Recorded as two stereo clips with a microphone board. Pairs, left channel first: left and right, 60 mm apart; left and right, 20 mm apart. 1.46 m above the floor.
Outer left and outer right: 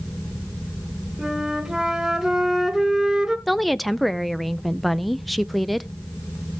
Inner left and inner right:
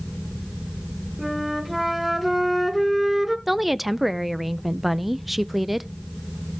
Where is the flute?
5° right (ahead or behind), 1.3 m.